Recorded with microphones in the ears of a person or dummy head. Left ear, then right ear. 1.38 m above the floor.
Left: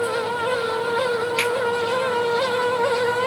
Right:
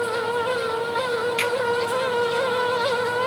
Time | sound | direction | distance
1.4 | a finger snap | 15° left (ahead or behind) | 1.9 m